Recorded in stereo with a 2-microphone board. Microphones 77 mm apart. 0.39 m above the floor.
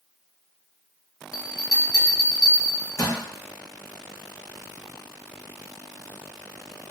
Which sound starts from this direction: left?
A bell, at 1.3 s.